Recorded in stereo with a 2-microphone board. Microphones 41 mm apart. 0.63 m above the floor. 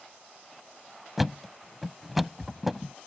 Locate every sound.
1.2 s a thud: 5° right (ahead or behind)